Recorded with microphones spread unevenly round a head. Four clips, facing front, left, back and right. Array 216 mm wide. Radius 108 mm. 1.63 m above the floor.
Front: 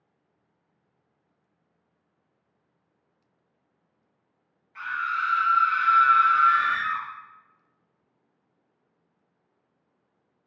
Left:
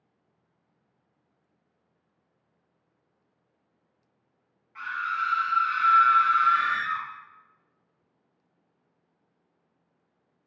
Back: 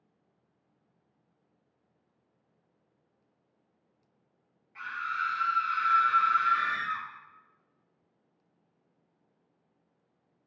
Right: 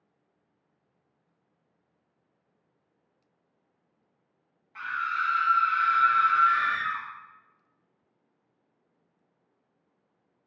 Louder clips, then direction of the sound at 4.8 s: Even, front 6 dB; 105° right.